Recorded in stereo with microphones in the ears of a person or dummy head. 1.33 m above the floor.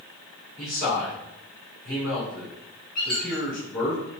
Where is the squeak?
Centre (ahead or behind), 1.0 m.